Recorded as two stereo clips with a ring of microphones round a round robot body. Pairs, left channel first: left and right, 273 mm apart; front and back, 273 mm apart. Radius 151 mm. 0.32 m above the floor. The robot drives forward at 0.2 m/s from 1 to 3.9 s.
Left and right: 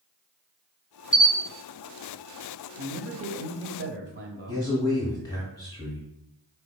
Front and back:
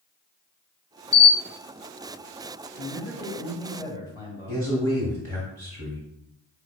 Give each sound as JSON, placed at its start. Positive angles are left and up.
{"t": 1.1, "sound": "a camera shutter", "azimuth_deg": 20, "distance_m": 1.1}
{"t": 2.8, "sound": "a man speaking", "azimuth_deg": -90, "distance_m": 1.1}
{"t": 4.5, "sound": "a man speaking", "azimuth_deg": 155, "distance_m": 1.3}